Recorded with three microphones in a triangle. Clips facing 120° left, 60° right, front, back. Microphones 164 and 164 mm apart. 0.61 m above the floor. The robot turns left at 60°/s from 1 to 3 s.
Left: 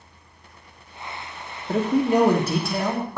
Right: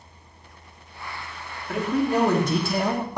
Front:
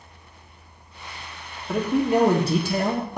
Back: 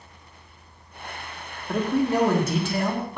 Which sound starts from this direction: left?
A man speaking, at 1.7 s.